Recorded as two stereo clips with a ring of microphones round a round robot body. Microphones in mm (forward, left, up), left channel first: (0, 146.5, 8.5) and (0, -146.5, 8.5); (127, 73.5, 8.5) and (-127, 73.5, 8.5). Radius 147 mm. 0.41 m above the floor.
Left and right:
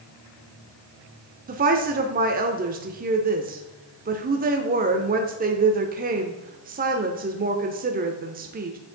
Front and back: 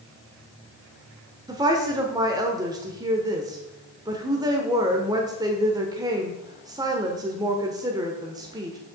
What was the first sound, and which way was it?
A woman speaking, 115° right.